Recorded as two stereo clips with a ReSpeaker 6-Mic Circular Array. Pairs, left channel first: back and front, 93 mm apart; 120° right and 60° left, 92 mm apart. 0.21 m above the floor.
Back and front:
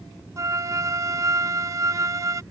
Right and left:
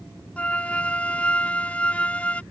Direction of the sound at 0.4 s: 45° right.